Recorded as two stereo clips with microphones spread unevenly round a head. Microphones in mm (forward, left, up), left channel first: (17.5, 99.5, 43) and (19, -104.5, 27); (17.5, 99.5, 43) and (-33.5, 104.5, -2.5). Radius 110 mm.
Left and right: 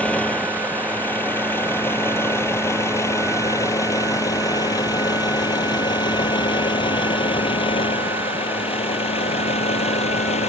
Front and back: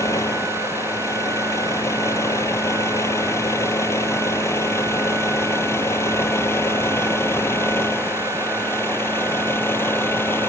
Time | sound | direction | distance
0.0 | a vehicle | 5° left | ?